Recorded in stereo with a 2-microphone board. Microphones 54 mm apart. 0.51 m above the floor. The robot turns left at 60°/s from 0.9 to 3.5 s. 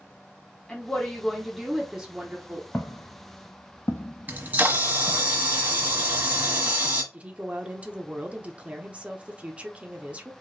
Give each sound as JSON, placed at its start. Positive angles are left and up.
{"t": 0.7, "sound": "a woman speaking", "side_deg": 15, "distance_m": 1.0}
{"t": 2.7, "sound": "footsteps", "side_deg": 40, "distance_m": 1.3}
{"t": 4.3, "sound": "a camera shutter", "side_deg": -35, "distance_m": 1.2}
{"t": 7.1, "sound": "a woman speaking", "side_deg": -25, "distance_m": 0.9}